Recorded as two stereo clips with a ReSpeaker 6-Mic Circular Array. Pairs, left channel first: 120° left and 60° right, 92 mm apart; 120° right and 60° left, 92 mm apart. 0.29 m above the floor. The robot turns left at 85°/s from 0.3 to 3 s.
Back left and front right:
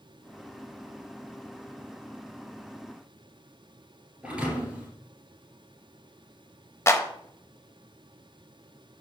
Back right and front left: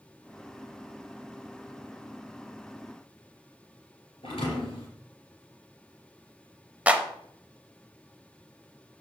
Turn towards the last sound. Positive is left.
turn(degrees=120)